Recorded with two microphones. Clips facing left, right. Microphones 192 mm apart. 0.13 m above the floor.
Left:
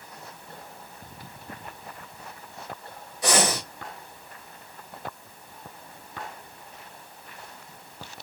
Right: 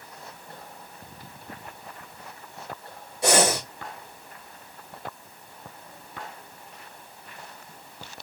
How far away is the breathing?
About 2.5 m.